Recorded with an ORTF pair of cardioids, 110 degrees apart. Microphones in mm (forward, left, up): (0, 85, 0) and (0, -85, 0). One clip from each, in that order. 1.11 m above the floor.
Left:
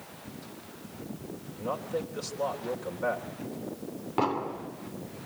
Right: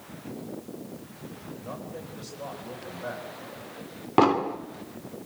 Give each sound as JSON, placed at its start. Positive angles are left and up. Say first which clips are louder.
{"t": 1.5, "sound": "a man speaking", "louder": "left 8 dB", "azimuth_deg": 55, "distance_m": 3.5}
{"t": 4.2, "sound": "an explosion", "louder": "right 8 dB", "azimuth_deg": -50, "distance_m": 2.0}